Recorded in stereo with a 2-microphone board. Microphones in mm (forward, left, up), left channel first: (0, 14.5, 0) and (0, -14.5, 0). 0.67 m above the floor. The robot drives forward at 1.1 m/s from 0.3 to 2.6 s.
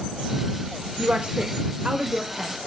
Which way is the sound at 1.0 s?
50° right (ahead or behind).